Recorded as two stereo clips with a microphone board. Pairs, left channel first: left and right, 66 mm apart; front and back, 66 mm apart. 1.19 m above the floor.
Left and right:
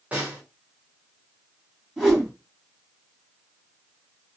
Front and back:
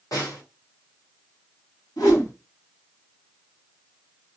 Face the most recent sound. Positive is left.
turn(degrees=-10)